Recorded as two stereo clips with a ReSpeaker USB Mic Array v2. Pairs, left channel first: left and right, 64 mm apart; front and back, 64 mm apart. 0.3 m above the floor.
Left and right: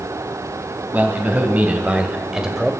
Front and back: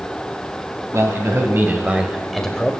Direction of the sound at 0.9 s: 150° right.